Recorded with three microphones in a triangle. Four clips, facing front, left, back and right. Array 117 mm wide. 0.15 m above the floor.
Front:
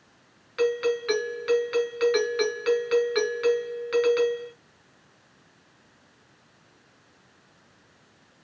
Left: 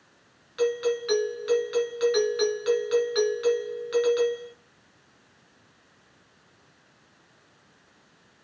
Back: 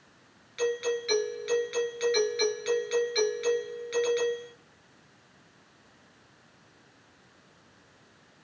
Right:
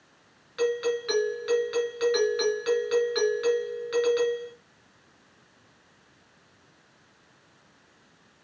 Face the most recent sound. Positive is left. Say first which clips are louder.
# left 1 dB, front 5 dB
turn(degrees=0)